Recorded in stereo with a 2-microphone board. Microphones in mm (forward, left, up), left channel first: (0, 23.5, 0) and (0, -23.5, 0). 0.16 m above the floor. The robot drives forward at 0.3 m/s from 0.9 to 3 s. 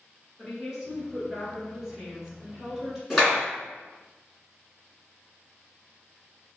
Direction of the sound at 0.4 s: 10° right (ahead or behind).